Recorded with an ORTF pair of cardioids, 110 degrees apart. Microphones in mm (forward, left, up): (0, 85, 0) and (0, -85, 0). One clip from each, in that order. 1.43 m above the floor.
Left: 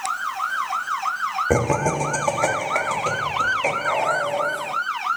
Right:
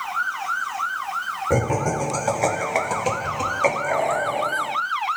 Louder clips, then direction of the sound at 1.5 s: Even; 50° left.